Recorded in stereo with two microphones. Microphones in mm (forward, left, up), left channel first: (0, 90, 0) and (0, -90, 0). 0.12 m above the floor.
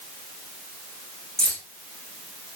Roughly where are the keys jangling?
Centre.